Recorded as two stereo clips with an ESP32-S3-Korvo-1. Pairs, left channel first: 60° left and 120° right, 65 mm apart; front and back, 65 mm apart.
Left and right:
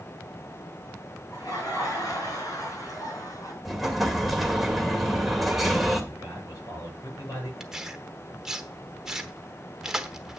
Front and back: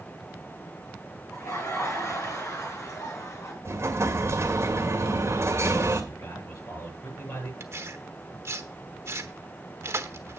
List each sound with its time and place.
1.3 s laughter: 40° left, 6.5 m
3.6 s an explosion: 150° left, 2 m
6.1 s a man speaking: 35° left, 8.5 m
7.6 s tearing paper: 160° left, 1.0 m